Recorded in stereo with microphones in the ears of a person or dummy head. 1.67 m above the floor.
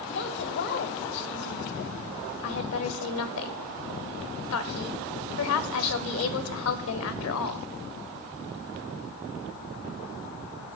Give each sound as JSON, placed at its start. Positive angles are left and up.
{"t": 0.1, "sound": "a woman speaking", "side_deg": 65, "distance_m": 1.0}
{"t": 2.4, "sound": "a woman speaking", "side_deg": 80, "distance_m": 0.9}